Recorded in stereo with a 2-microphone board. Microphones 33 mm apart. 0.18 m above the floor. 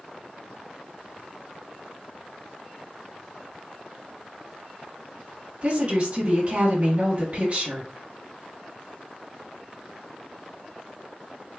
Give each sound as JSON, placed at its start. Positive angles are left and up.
{"t": 5.6, "sound": "a woman speaking", "side_deg": -35, "distance_m": 1.5}